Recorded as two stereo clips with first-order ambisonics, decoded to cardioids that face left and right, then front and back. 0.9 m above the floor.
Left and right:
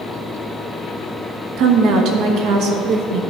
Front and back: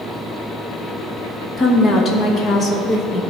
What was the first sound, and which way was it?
A woman speaking, 65° right.